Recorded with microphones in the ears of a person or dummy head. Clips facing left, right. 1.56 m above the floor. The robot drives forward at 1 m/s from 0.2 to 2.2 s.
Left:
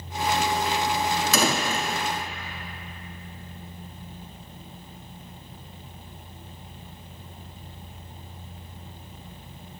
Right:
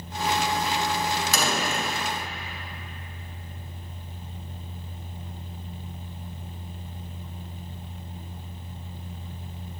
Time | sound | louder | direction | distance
1.3 | a door slam | left 2 dB | 70° left (ahead or behind) | 1.4 m